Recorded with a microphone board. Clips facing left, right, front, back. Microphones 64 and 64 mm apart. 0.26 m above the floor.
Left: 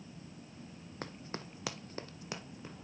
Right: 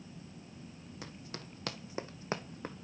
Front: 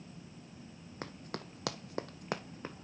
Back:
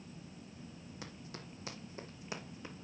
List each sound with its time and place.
1.0 s running footsteps: 45° left, 0.9 m; by 2.8 s 55° right, 1.1 m